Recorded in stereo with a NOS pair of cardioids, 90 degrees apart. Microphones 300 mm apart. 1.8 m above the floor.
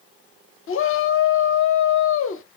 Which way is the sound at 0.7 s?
45° left.